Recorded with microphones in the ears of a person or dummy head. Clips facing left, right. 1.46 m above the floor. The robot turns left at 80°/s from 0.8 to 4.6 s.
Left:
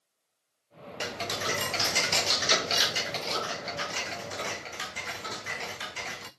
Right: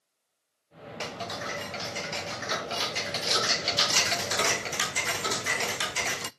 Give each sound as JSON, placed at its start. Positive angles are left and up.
{"t": 1.0, "sound": "ticking", "azimuth_deg": 165, "distance_m": 0.5}